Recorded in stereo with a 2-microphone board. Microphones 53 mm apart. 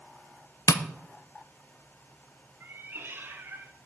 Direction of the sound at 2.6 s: 40° right (ahead or behind).